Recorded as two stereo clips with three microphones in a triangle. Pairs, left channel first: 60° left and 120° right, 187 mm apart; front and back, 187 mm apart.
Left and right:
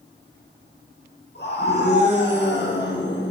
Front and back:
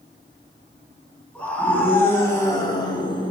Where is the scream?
85° left, 5.5 m; by 3.3 s 60° left, 4.5 m.